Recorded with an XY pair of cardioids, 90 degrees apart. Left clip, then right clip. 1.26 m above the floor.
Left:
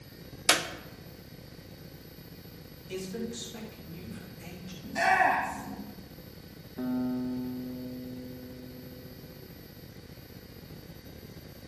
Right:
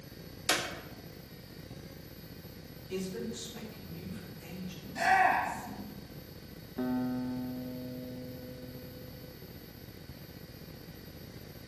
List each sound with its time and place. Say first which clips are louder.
0.5 s a clap: left 5 dB; 55° left, 1.0 m
2.9 s a man speaking: left 1 dB; 55° left, 6.5 m
4.8 s a shout: left 2 dB; 70° left, 2 m
6.8 s a guitar: left 1 dB; 20° right, 1.8 m